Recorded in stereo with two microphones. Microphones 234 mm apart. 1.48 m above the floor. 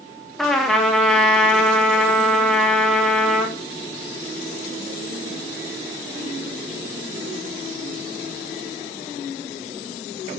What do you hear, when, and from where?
0.4 s a trumpet: centre (ahead or behind), 3 m